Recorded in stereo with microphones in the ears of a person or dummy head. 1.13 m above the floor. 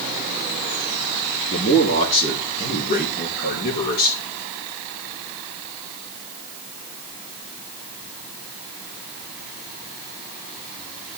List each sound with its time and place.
1.5 s a man speaking: 30° left (ahead or behind), 3.5 m; by 4.2 s 55° left (ahead or behind), 5 m